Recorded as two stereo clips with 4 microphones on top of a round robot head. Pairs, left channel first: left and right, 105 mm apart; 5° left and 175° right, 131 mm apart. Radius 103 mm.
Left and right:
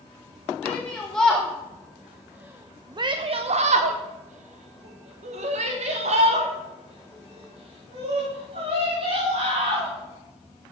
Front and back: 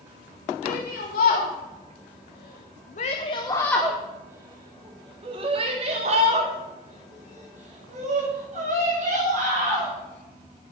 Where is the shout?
10° left, 1.9 m; by 9.9 s 140° right, 4.5 m.